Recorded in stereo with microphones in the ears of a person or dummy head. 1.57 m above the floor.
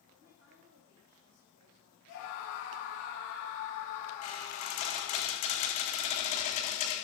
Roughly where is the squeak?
Left.